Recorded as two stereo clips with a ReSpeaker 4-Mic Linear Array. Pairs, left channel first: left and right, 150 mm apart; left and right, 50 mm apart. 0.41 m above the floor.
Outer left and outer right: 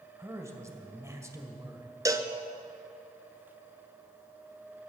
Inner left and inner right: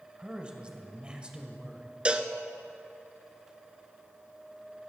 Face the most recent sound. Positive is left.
turn(degrees=-25)  # may be behind; listen again after turning